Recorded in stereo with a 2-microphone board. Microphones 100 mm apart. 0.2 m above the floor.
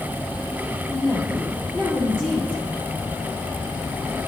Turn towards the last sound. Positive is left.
turn(degrees=10)  # may be behind; listen again after turning